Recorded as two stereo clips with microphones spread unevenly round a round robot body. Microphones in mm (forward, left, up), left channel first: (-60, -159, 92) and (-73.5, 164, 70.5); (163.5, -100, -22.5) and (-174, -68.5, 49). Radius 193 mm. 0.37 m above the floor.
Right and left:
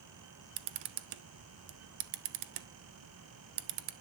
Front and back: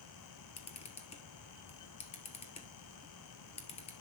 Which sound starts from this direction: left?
A camera shutter, at 0.6 s.